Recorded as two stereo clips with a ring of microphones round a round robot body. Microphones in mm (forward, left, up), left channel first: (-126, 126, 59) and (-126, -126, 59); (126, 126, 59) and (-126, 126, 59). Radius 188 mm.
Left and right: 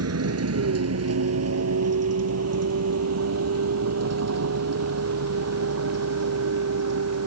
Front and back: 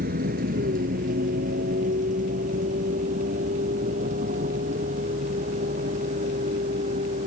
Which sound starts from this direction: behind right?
A vehicle, at 0.0 s.